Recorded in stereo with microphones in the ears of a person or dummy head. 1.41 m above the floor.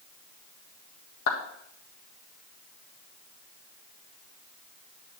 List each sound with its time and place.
1.3 s a clap: 65° left (ahead or behind), 1.8 m